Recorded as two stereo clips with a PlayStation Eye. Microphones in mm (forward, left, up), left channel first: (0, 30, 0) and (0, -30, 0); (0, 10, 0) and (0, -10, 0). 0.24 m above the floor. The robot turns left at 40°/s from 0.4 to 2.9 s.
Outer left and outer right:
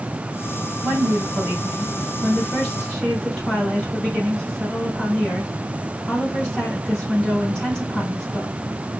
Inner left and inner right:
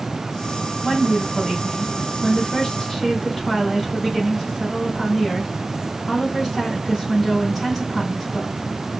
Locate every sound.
0.8 s a woman speaking: 15° right (ahead or behind), 1.5 m; by 8.5 s 10° left (ahead or behind), 1.5 m